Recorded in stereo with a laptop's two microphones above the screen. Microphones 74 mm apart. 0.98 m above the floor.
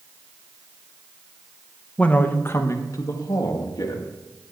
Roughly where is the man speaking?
Centre.